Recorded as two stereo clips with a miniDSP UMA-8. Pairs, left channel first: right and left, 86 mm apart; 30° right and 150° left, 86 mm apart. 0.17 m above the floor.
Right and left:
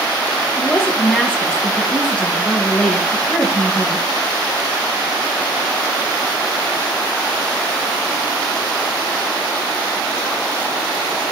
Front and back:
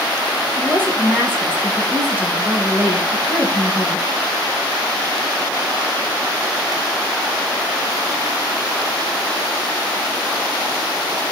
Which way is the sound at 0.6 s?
160° right.